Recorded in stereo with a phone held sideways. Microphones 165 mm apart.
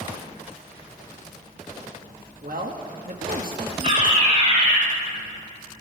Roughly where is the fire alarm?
Right.